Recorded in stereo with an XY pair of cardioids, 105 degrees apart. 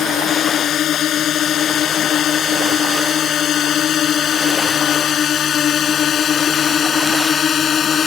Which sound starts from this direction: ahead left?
A drone, at 0.0 s.